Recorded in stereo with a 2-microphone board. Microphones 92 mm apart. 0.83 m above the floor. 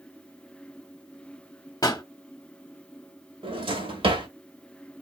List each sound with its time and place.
1.8 s a pop: 40° left (ahead or behind), 0.7 m
3.4 s a drawer: 80° right, 1.5 m